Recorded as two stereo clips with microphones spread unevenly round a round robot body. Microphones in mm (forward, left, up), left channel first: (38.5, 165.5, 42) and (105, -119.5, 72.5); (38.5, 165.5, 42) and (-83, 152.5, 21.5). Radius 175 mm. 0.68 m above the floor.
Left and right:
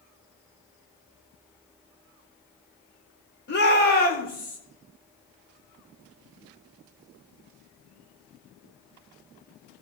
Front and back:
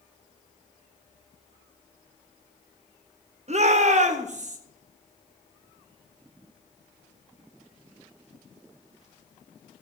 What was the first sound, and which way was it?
A shout, 160° left.